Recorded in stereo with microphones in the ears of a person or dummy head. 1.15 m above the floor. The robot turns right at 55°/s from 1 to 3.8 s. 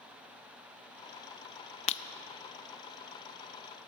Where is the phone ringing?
I don't hear a phone ringing.